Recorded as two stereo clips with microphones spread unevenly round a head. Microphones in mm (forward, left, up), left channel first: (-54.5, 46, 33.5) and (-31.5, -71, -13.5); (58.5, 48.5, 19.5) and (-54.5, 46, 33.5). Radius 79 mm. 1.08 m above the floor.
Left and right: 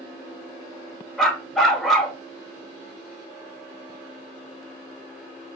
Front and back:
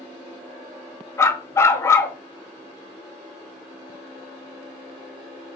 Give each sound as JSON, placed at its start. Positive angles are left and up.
{"t": 1.2, "sound": "a dog barking", "azimuth_deg": 60, "distance_m": 0.8}